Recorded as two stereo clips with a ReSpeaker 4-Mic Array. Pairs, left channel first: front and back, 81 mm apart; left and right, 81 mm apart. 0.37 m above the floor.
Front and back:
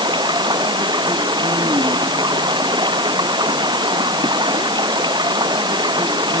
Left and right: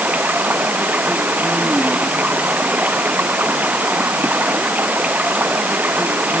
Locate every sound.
0.0 s running water: 160° right